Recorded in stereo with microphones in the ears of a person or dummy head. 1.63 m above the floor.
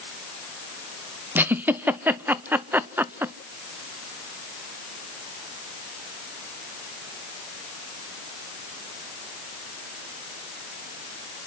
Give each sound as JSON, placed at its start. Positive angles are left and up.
{"t": 1.4, "sound": "a giggle", "side_deg": -10, "distance_m": 0.5}